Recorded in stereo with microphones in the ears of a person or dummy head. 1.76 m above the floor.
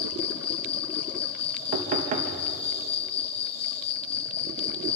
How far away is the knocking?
About 2 m.